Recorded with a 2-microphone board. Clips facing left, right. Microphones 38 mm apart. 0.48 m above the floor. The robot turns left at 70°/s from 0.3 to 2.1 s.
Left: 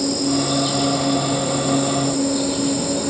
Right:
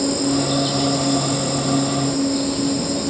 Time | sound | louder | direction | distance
0.0 | an insect | right 1 dB | 145° right | 1.2 m